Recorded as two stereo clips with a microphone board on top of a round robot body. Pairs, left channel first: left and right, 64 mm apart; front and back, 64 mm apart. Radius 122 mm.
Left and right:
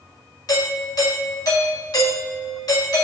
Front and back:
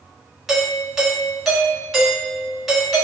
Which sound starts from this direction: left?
A doorbell, at 0.5 s.